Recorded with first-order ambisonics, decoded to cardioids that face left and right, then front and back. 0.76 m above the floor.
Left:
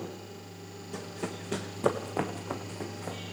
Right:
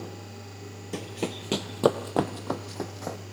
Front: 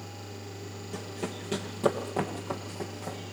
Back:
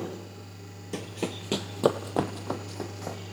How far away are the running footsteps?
About 1.1 m.